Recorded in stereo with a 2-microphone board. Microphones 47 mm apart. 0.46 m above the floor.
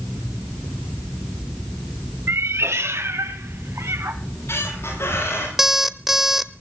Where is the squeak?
65° left (ahead or behind), 10 m.